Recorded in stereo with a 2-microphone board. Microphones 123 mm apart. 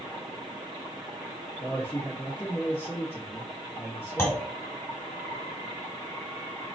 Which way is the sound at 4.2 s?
20° left (ahead or behind).